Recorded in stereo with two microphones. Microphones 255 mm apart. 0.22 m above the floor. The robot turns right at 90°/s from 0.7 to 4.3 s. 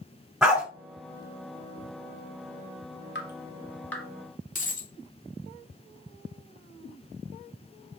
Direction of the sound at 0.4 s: 5° right (ahead or behind).